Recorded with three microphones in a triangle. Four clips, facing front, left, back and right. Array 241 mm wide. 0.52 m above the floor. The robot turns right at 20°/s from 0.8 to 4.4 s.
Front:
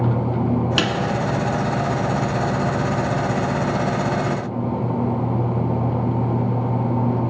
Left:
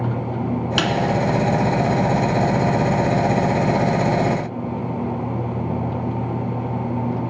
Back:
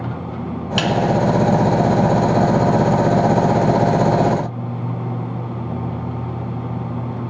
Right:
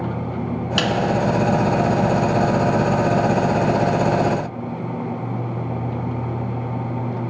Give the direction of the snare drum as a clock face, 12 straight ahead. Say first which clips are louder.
Right 1 dB, back 2 dB; 12 o'clock.